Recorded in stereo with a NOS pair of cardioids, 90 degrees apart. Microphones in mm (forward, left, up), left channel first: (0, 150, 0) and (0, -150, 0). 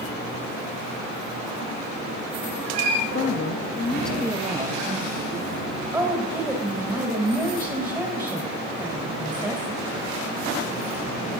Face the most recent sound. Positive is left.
turn(degrees=-15)